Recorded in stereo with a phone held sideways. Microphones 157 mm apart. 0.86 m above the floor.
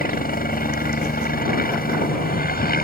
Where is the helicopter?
70° left (ahead or behind).